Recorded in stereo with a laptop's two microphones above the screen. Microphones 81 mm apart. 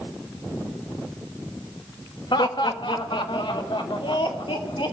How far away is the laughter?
About 1.5 m.